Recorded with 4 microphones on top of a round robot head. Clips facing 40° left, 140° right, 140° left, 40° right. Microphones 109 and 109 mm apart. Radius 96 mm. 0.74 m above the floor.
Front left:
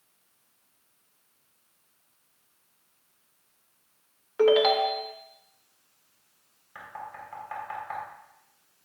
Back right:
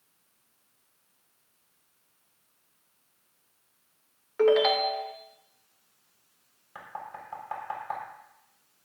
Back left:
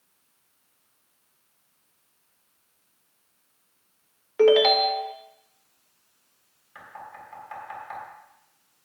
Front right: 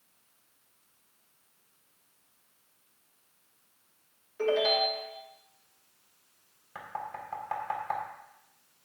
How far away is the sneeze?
No sneeze in this recording.